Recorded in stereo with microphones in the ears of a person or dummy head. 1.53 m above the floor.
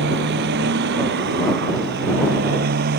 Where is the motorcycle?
60° right (ahead or behind); by 3.0 s 55° right (ahead or behind).